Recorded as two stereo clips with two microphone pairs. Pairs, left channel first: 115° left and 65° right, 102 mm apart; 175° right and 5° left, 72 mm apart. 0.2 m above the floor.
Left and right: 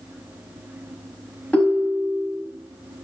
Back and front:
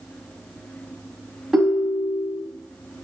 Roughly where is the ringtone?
Left.